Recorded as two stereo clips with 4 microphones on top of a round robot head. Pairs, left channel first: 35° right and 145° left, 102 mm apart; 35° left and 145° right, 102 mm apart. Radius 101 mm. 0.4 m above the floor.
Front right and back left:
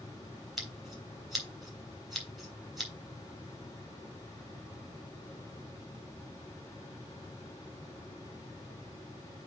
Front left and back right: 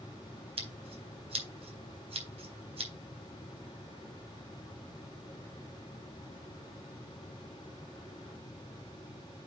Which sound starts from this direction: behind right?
Scissors, at 0.6 s.